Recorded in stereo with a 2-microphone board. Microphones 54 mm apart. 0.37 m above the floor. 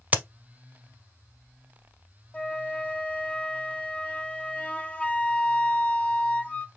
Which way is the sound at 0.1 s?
30° right (ahead or behind).